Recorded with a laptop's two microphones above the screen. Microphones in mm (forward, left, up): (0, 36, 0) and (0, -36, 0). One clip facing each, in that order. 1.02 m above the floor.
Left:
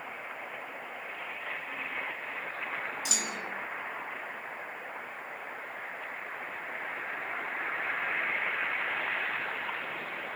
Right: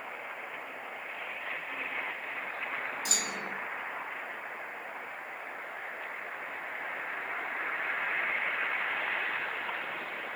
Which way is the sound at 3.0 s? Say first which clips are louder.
Even; 40° right (ahead or behind).